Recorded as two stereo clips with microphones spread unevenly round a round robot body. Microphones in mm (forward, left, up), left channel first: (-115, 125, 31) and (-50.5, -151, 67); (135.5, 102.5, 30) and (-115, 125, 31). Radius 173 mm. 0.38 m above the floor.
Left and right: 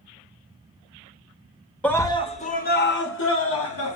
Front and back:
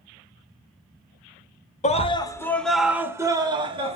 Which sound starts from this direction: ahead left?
A scream, at 1.8 s.